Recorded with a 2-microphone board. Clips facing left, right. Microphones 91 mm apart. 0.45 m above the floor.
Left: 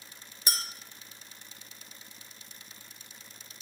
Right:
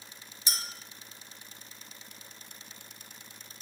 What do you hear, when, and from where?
0.5 s a clink: 50° left (ahead or behind), 0.7 m